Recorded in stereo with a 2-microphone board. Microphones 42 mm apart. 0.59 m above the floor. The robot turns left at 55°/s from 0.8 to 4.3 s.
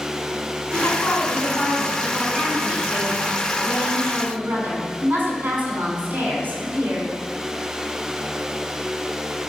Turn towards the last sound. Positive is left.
turn(degrees=-135)